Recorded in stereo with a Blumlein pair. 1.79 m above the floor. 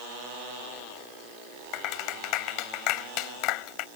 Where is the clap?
40° left.